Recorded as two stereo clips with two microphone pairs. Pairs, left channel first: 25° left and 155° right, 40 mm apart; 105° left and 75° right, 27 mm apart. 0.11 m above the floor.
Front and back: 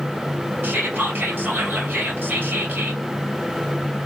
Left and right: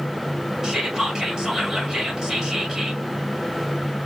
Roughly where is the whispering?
Behind right.